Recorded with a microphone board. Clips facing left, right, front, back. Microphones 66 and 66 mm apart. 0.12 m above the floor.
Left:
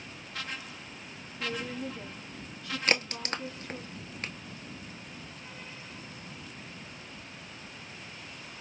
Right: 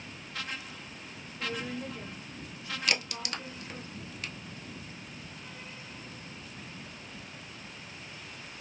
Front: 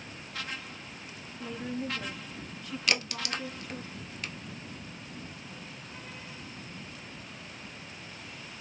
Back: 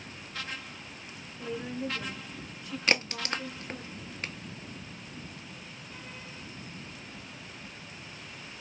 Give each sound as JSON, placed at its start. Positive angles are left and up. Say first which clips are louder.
{"t": 1.4, "sound": "a woman speaking", "louder": "left 1 dB, back 1 dB", "azimuth_deg": -120, "distance_m": 1.8}
{"t": 2.9, "sound": "a crack", "louder": "left 4 dB, back 3 dB", "azimuth_deg": 130, "distance_m": 0.7}